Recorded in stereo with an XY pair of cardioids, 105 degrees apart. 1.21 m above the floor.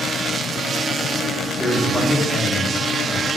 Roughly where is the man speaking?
Ahead.